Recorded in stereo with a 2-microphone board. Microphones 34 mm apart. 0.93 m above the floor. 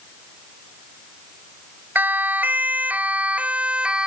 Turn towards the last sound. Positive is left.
turn(degrees=-30)  # may be behind; listen again after turning